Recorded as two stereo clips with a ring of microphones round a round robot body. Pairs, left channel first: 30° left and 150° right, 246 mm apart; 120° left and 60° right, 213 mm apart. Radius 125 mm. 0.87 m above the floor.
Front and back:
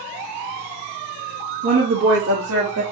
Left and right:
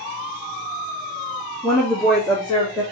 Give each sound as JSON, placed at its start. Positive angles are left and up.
{"t": 1.6, "sound": "a woman speaking", "azimuth_deg": -145, "distance_m": 1.3}